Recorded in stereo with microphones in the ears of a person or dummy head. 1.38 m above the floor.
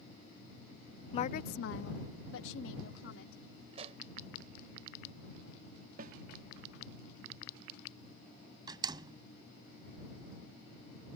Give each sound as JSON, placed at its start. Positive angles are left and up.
{"t": 1.1, "sound": "a woman speaking", "side_deg": 35}
{"t": 3.7, "sound": "a pop", "side_deg": -35}
{"t": 6.0, "sound": "a snare drum", "side_deg": -50}
{"t": 8.7, "sound": "a door slam", "side_deg": -25}